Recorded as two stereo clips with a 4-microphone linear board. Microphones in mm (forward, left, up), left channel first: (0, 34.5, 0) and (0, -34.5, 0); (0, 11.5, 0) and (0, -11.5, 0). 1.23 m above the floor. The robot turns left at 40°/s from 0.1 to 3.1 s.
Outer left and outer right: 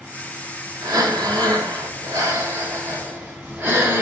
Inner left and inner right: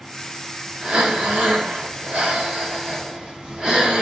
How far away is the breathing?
About 5 m.